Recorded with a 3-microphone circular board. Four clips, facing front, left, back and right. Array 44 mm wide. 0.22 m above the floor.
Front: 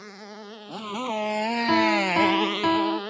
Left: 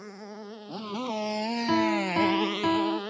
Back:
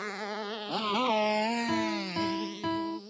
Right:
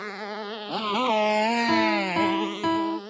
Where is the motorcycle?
115° right; by 3.1 s 20° left.